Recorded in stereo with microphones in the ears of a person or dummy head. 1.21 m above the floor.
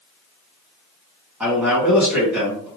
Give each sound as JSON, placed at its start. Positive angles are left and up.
{"t": 1.4, "sound": "a man speaking", "side_deg": -10, "distance_m": 1.8}